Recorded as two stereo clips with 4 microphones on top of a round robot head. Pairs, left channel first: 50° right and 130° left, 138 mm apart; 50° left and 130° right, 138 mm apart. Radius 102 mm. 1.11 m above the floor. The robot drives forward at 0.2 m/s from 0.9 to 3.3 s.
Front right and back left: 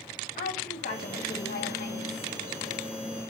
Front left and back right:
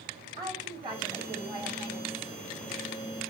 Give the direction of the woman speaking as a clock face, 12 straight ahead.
2 o'clock.